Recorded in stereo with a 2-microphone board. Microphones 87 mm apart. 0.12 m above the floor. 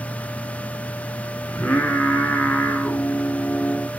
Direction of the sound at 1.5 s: 15° left (ahead or behind).